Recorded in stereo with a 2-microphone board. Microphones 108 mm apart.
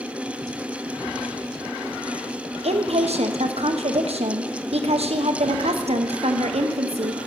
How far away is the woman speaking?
About 1.1 m.